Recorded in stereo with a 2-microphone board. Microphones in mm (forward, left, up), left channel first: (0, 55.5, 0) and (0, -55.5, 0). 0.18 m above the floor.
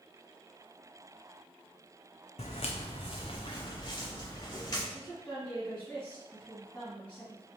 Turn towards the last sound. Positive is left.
turn(degrees=10)  # may be behind; listen again after turning